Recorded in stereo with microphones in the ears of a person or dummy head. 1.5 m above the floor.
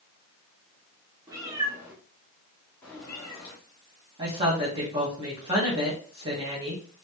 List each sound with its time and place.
1.3 s a cat meowing: 25° right (ahead or behind), 1.8 m; by 3.5 s 25° left (ahead or behind), 1.7 m
4.2 s a woman speaking: 30° right (ahead or behind), 1.6 m